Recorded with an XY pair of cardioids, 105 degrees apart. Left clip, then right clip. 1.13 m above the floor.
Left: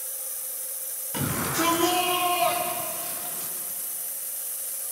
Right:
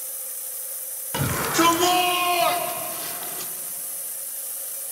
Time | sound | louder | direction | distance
1.1 | a shout | right 5 dB | 45° right | 4 m